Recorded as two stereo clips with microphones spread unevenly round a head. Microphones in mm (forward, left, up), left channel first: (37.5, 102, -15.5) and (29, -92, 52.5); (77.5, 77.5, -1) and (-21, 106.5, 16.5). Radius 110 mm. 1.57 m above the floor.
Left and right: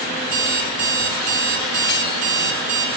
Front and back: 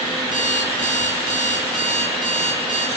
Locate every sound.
0.2 s an alarm clock: 135° right, 3 m